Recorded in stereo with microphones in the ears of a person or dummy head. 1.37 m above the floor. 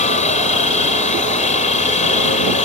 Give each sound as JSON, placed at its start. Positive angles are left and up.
{"t": 0.0, "sound": "a helicopter", "side_deg": 40}